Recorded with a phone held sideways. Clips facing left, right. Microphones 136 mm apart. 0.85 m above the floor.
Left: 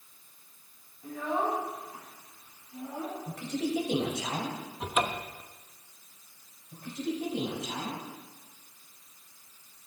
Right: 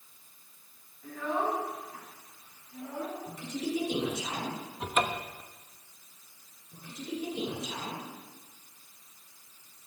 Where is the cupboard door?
5° left (ahead or behind), 0.8 m.